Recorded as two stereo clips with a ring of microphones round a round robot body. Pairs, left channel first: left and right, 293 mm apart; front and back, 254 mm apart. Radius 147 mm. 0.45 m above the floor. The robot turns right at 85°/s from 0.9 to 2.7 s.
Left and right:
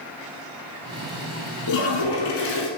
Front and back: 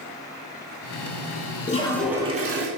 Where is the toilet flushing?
60° left, 0.8 m; by 2.7 s 145° left, 0.8 m.